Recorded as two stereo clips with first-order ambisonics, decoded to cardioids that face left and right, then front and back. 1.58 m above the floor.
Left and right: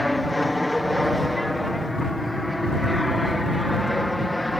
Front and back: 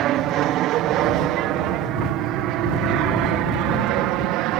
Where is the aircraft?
175° left.